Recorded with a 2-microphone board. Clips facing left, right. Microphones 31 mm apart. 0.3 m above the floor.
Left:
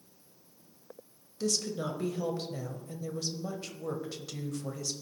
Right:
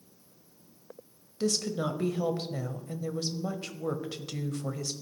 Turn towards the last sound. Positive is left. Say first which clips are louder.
# right 3 dB
turn(degrees=-35)  # may be behind; listen again after turning